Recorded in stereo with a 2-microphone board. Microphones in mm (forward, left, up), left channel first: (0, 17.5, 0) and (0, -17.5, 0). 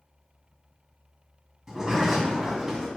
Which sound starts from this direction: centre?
A sliding door, at 1.7 s.